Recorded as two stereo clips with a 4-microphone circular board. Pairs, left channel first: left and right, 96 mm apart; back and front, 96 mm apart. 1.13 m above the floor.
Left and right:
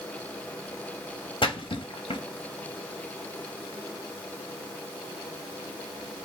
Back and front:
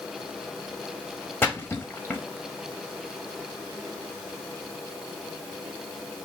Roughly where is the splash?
Behind left.